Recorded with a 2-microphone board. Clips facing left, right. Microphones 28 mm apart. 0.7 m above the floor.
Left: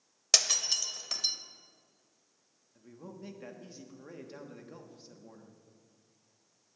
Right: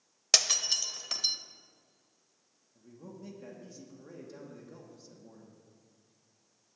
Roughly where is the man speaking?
Left.